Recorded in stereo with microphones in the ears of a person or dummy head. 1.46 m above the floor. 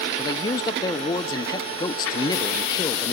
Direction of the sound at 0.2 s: 20° left (ahead or behind).